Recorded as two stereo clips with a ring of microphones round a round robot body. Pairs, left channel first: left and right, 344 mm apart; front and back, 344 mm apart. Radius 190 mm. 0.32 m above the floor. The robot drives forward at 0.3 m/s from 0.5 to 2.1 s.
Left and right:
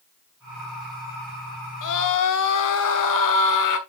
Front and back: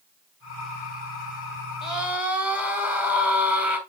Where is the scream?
90° left, 2.5 m; by 3.8 s 95° left, 2.5 m.